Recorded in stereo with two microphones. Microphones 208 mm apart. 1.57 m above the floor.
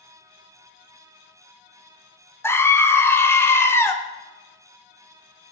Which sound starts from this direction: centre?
A scream, at 2.4 s.